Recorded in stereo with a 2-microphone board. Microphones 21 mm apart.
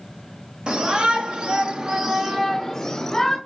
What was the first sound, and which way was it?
A shout, 45° right (ahead or behind).